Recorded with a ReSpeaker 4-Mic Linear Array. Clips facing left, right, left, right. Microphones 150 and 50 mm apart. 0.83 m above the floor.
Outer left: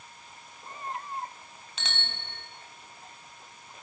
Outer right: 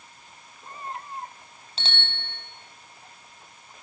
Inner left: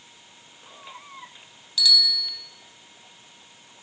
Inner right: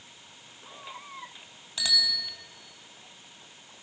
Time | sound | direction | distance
1.8 | a bicycle bell | 30° right (ahead or behind) | 4 m